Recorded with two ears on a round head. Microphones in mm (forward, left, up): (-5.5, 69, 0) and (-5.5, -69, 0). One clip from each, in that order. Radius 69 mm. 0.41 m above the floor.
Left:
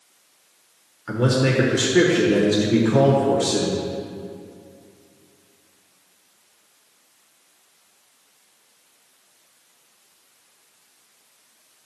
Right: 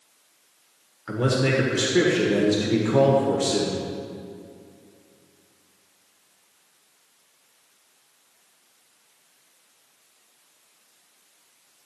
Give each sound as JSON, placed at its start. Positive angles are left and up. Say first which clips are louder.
{"t": 1.1, "sound": "a man speaking", "louder": "left 2 dB", "side_deg": -5, "distance_m": 1.3}